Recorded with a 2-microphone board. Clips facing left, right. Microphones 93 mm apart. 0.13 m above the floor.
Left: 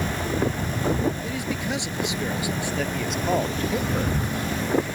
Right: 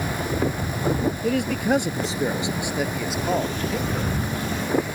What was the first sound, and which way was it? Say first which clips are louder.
A man speaking: right 6 dB; 60° right (ahead or behind).